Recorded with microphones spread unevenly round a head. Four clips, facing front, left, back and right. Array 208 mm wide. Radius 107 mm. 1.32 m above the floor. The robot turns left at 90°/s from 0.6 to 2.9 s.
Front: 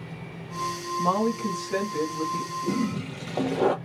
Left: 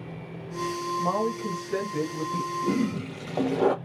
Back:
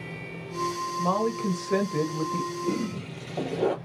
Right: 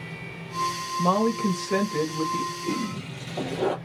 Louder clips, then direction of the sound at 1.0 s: Right 6 dB, front 2 dB; 90° right.